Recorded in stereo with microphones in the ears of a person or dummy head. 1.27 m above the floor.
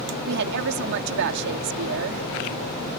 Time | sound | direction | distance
0.2 | a woman speaking | 65° right (ahead or behind) | ?